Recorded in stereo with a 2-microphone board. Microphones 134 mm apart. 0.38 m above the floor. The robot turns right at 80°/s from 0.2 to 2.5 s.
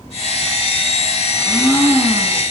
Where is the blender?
130° left, 3.5 m; by 2.4 s 145° right, 3.5 m.